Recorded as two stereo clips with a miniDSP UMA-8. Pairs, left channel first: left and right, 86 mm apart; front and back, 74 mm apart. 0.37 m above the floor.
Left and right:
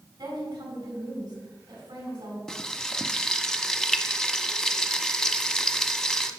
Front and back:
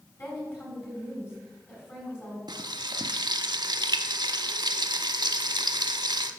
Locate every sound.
0.2 s a woman speaking: 55° right, 4 m
2.5 s frying: 175° left, 0.5 m